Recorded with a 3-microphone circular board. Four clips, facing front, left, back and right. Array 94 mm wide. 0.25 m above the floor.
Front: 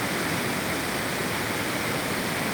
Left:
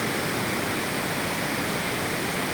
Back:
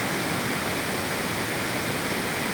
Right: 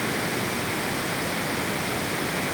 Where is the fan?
I don't hear a fan.